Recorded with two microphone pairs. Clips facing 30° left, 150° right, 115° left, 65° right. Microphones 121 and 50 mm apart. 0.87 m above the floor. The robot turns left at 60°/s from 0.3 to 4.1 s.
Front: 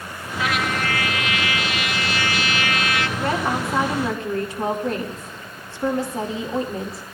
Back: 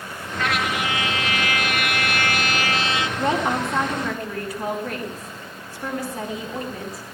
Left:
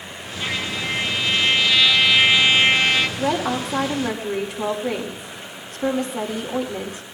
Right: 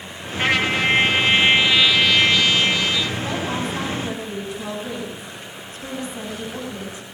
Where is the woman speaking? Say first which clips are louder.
Back 3 dB, left 3 dB; 150° left, 2 m; by 7.0 s 95° left, 2 m.